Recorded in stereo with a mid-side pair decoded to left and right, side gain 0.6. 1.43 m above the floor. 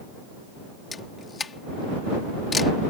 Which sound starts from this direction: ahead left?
A camera shutter, at 0.9 s.